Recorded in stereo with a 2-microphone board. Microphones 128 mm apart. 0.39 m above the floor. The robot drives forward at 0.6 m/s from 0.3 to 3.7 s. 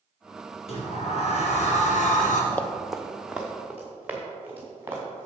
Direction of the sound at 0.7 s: 50° left (ahead or behind).